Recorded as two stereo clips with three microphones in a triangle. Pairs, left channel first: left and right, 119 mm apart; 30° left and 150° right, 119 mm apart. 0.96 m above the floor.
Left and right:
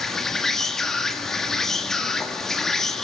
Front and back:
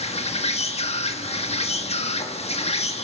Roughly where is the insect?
Ahead.